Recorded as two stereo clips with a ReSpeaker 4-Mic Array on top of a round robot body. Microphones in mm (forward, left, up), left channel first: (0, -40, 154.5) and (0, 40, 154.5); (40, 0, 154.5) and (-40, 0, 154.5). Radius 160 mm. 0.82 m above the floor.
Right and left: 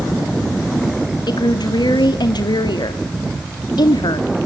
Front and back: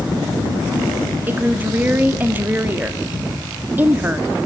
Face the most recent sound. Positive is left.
turn(degrees=-115)